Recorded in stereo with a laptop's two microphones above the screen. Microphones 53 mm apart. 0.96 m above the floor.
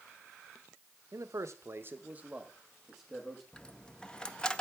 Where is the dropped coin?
15° left (ahead or behind), 0.5 m.